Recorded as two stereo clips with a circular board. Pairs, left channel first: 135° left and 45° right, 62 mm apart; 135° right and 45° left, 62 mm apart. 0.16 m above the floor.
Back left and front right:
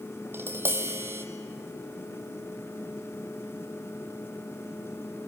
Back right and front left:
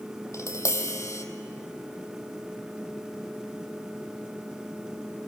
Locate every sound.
0.3 s tapping: 95° right, 1.4 m